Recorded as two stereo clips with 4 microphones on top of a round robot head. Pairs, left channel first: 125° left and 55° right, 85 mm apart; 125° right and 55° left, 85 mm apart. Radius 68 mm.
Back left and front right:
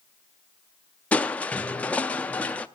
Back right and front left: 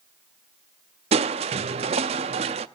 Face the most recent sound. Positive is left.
turn(degrees=55)